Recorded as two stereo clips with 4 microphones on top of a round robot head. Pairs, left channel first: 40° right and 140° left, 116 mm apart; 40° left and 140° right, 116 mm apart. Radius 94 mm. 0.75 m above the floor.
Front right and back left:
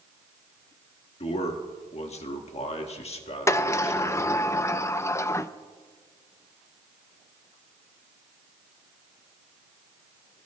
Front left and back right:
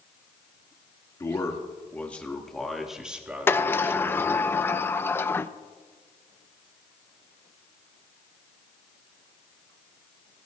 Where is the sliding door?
5° right, 0.6 m.